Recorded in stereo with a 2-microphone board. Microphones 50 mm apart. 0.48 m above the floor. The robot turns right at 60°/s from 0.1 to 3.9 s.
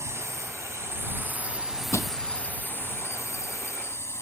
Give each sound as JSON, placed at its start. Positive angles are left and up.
{"t": 0.0, "sound": "a drone", "azimuth_deg": -115}
{"t": 1.9, "sound": "crushing", "side_deg": 85}